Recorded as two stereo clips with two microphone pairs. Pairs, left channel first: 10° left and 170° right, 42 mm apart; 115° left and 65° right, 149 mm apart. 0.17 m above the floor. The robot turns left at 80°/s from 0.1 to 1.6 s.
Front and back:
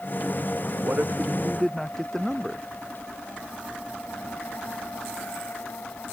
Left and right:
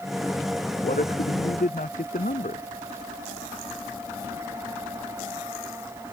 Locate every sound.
0.8 s a man speaking: 150° left; by 2.6 s 90° left